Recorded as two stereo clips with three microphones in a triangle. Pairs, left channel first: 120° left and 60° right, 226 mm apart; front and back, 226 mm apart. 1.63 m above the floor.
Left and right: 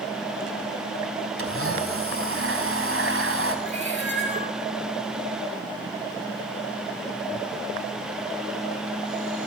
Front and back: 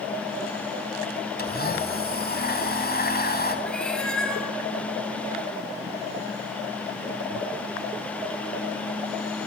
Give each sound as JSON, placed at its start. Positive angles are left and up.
{"t": 1.4, "sound": "a blender", "azimuth_deg": -45, "distance_m": 3.5}
{"t": 3.6, "sound": "a cat meowing", "azimuth_deg": 85, "distance_m": 3.0}